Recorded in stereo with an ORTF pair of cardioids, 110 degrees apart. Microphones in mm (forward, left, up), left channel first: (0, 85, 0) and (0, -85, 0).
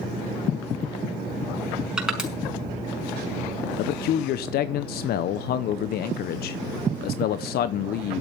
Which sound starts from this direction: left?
A man speaking, at 3.8 s.